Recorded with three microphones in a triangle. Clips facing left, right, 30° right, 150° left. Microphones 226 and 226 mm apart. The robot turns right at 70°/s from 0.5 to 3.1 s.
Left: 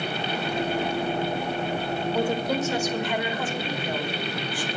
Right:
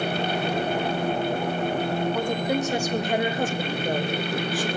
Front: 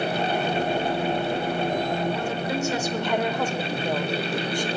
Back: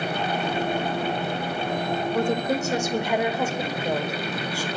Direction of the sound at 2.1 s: 165° left.